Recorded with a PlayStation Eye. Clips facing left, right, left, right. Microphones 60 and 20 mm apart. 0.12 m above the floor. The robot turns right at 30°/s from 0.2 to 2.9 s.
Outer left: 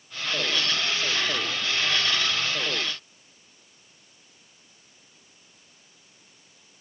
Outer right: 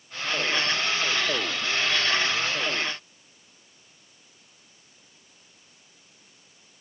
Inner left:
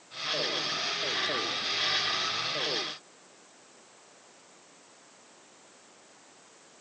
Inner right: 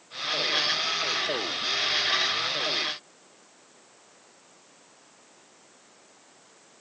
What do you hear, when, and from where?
Only background noise.